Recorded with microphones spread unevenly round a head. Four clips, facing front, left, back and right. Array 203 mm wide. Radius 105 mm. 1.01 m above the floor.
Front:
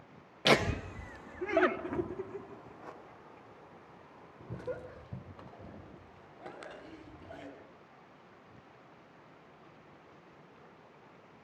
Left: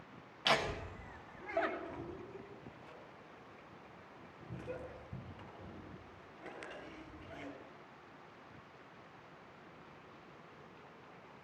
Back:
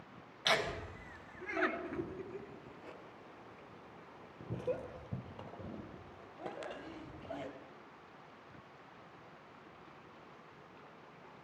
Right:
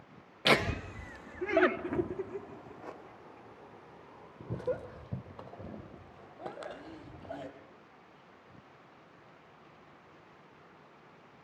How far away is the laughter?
About 1.3 m.